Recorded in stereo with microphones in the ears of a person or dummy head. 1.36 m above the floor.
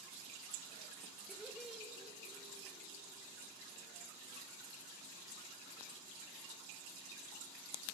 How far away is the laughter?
About 1.3 m.